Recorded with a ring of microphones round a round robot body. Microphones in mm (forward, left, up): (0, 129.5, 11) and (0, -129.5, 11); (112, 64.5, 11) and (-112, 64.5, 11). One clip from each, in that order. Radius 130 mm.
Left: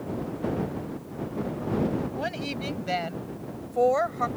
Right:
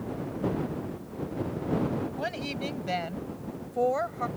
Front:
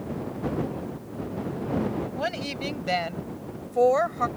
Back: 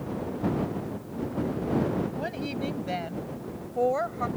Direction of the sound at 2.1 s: 5° right.